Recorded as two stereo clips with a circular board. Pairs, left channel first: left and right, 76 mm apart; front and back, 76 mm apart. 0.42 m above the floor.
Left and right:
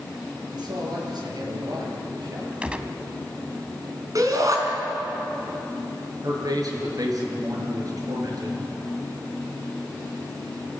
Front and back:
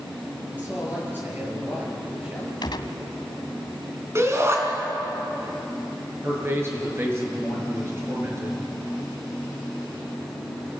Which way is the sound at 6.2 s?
125° right.